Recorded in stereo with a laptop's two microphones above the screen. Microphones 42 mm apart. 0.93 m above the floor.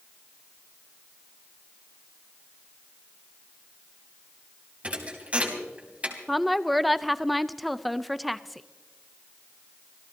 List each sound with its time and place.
4.8 s a thud: 30° right (ahead or behind), 3 m
6.3 s a woman speaking: 5° left (ahead or behind), 0.6 m